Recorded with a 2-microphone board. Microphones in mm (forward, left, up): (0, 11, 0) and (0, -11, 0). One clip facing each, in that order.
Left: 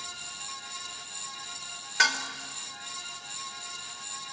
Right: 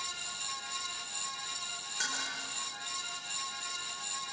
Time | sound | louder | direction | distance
2.0 | dishes clattering | left 12 dB | 80° left | 2.5 m